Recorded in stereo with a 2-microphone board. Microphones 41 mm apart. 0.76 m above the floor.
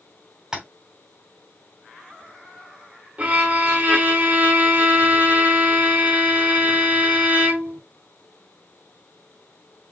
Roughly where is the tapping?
Centre.